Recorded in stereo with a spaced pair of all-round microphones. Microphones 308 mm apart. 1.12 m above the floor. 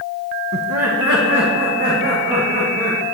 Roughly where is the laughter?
Right.